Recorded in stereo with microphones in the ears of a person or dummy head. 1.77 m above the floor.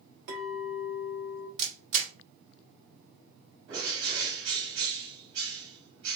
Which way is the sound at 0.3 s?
60° right (ahead or behind).